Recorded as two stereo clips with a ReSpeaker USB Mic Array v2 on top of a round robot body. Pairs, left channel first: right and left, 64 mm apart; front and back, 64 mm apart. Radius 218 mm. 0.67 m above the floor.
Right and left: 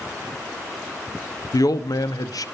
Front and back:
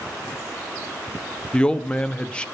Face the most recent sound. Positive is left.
turn(degrees=-75)